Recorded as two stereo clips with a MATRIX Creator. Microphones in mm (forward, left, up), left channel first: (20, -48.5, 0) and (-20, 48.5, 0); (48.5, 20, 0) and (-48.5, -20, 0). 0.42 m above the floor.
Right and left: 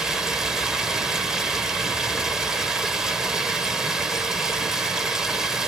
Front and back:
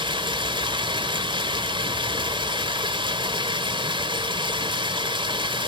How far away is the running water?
About 1.7 m.